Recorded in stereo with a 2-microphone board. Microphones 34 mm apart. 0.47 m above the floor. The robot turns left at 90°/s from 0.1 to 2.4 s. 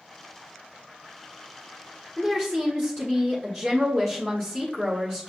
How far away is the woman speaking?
About 1.2 m.